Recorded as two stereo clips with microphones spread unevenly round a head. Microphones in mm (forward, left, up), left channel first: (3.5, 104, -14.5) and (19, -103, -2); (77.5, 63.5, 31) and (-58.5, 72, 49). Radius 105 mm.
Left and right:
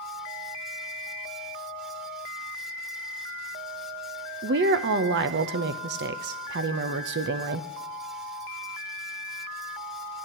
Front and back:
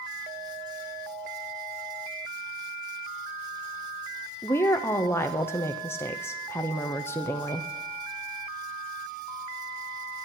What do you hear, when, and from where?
4.4 s a woman speaking: 65° right, 0.7 m